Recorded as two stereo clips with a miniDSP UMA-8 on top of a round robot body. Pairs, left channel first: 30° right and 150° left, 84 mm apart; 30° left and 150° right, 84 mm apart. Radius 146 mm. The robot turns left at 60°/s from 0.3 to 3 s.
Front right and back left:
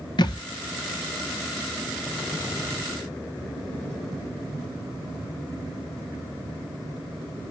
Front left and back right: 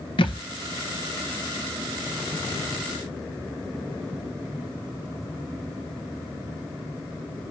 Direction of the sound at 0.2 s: 5° left.